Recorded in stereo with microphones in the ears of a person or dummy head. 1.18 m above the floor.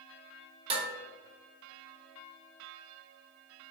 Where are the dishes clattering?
35° right (ahead or behind), 1.0 m.